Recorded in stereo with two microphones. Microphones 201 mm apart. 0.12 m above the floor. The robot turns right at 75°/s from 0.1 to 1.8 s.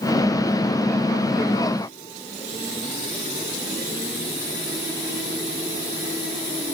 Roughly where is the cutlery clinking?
No cutlery clinking in this recording.